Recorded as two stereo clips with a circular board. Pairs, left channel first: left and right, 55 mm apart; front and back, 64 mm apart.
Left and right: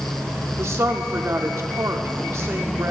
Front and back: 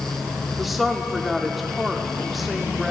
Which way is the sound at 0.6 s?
95° right.